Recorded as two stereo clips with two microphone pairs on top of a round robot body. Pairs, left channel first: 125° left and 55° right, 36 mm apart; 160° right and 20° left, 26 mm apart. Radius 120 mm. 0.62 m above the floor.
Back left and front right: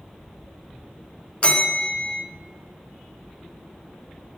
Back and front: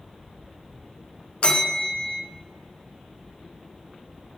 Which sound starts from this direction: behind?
A bell, at 1.4 s.